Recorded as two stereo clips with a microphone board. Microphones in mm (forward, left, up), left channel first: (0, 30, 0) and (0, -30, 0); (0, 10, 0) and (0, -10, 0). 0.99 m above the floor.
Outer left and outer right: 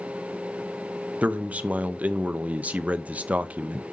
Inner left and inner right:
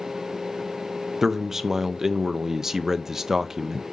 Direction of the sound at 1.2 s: 20° right (ahead or behind).